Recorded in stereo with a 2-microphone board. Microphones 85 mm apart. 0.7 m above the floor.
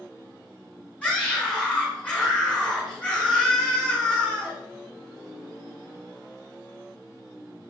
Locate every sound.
1.0 s a scream: 15° left (ahead or behind), 7 m